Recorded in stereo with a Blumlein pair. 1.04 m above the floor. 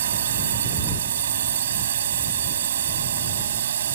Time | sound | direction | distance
0.0 | a drone | 65° right | ?